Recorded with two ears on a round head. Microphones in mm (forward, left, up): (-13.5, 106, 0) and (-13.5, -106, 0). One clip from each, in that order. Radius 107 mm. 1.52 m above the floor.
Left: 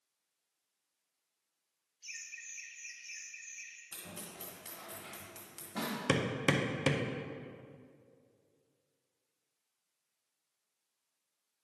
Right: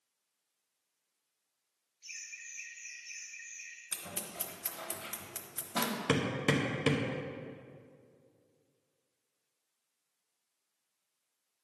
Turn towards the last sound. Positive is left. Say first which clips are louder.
# left 1 dB
turn(degrees=20)  # may be behind; listen again after turning